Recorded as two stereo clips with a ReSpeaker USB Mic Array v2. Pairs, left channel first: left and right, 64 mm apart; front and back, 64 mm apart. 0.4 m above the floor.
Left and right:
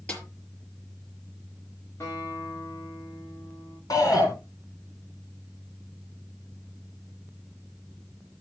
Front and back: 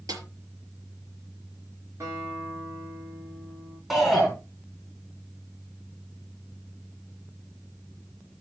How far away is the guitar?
About 9.5 m.